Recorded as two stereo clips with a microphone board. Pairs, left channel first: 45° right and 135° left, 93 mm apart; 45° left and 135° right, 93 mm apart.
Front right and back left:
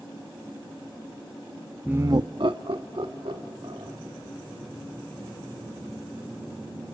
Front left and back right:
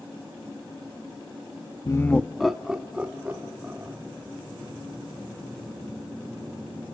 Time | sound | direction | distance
1.9 | laughter | 60° left | 0.5 m